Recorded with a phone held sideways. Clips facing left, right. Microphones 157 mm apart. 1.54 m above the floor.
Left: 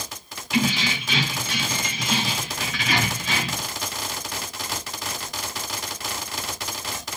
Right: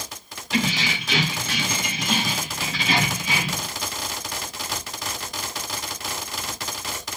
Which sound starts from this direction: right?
Keys jangling, at 0.5 s.